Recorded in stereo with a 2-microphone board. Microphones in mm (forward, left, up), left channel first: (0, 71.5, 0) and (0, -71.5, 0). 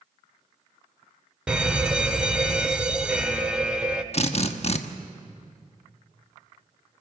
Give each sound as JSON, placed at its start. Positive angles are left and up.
{"t": 1.5, "sound": "a fire alarm", "side_deg": -5, "distance_m": 1.1}
{"t": 4.1, "sound": "a drill", "side_deg": 45, "distance_m": 1.0}